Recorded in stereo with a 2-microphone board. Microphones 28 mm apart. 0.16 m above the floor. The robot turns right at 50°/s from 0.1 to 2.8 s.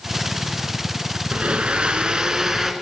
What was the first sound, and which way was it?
A blender, 90° right.